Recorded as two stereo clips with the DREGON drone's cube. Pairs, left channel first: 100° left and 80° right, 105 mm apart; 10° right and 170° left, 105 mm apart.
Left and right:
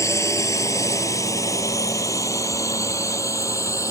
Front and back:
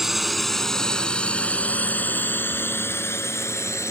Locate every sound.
0.0 s a drone: 85° left; by 3.9 s 45° left